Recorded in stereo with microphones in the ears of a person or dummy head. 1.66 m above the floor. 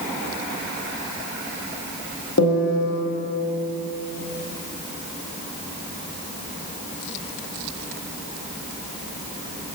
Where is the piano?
85° left, 0.9 m.